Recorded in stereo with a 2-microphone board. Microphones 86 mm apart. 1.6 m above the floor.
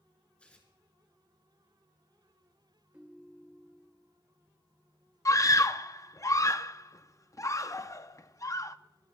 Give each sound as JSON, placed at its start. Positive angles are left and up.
{"t": 0.4, "sound": "tearing paper", "side_deg": 15, "distance_m": 3.5}
{"t": 2.9, "sound": "a ringtone", "side_deg": -15, "distance_m": 2.0}
{"t": 5.2, "sound": "a scream", "side_deg": 40, "distance_m": 0.6}